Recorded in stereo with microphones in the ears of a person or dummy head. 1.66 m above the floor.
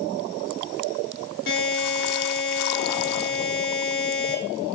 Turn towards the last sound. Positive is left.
turn(degrees=65)  # may be behind; listen again after turning